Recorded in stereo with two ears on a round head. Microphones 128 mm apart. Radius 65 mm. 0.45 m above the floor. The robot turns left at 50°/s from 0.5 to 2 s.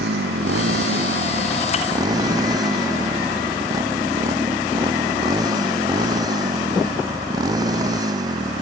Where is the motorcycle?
75° right; by 8.6 s 150° right.